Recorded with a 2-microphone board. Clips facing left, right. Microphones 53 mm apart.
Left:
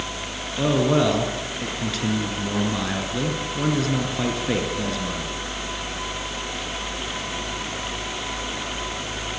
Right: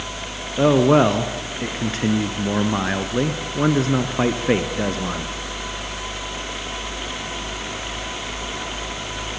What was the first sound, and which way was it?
A man speaking, 35° right (ahead or behind).